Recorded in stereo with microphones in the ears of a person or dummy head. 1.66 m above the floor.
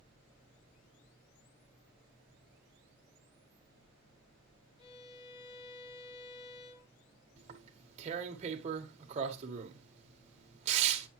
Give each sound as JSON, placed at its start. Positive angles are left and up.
{"t": 4.8, "sound": "a violin", "side_deg": 35, "distance_m": 3.5}
{"t": 7.4, "sound": "tearing paper", "side_deg": -40, "distance_m": 1.6}